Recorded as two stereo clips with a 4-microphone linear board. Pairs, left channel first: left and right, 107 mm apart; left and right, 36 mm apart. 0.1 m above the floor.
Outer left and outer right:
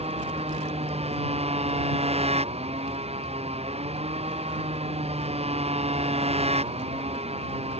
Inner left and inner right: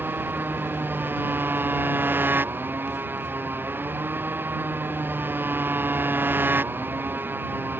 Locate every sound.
0.0 s a motorcycle: 75° right (ahead or behind)